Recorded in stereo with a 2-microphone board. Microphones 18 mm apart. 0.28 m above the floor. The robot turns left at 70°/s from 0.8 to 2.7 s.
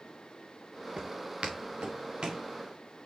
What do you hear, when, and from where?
1.0 s footsteps: 45° right (ahead or behind), 1.8 m; by 2.5 s 40° right (ahead or behind), 3 m